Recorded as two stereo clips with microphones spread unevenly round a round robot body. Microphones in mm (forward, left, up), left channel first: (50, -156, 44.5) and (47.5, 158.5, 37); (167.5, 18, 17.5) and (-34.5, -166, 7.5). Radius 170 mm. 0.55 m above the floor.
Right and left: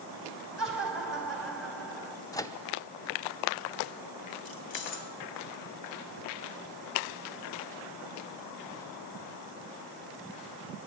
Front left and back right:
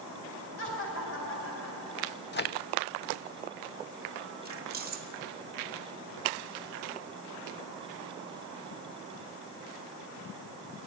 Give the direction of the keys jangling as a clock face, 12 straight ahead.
3 o'clock.